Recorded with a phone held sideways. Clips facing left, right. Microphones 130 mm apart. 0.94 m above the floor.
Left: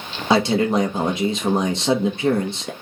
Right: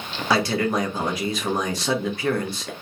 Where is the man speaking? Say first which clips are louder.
Left 4 dB; 25° left (ahead or behind), 0.8 m.